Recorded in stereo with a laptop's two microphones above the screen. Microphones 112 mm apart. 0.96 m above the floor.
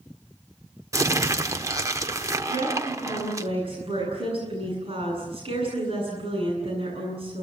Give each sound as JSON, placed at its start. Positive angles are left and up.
{"t": 0.9, "sound": "crumpling", "side_deg": -30, "distance_m": 0.9}
{"t": 2.5, "sound": "a woman speaking", "side_deg": -55, "distance_m": 8.5}